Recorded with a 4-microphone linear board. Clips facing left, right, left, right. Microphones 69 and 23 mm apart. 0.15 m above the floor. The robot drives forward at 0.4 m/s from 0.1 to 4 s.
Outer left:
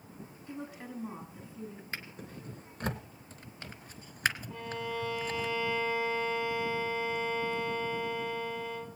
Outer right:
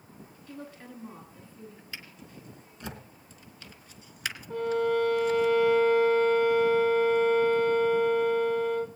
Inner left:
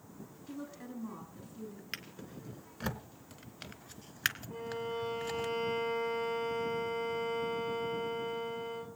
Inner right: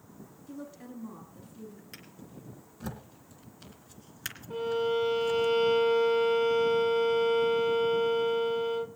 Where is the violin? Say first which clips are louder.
Outer right 11 dB, inner right 10 dB; 60° right (ahead or behind), 0.9 m.